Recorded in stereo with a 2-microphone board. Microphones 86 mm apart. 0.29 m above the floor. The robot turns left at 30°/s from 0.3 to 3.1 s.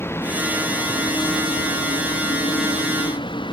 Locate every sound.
0.0 s a vehicle: 155° left; by 3.5 s 70° left